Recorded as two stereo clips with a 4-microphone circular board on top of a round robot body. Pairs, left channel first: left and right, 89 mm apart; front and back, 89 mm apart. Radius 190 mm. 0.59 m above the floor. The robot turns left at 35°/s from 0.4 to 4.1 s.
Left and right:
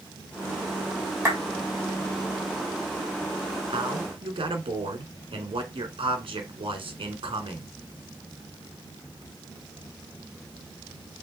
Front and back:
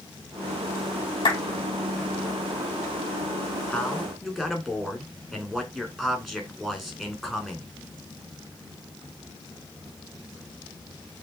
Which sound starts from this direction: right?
A man speaking, at 3.7 s.